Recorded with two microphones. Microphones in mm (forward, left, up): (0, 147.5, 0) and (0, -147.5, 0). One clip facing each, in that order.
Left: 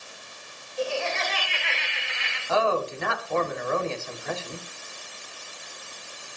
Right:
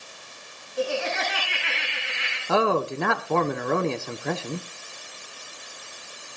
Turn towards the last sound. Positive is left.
turn(degrees=-65)  # may be behind; listen again after turning